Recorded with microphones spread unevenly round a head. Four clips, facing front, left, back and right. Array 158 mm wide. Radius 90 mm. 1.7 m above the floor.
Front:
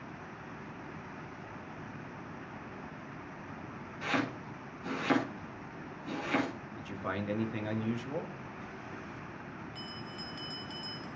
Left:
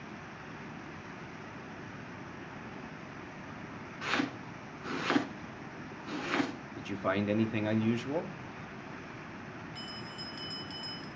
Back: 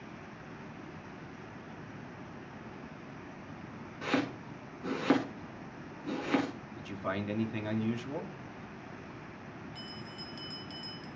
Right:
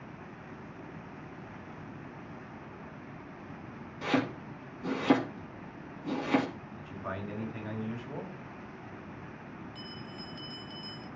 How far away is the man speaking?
About 1.7 m.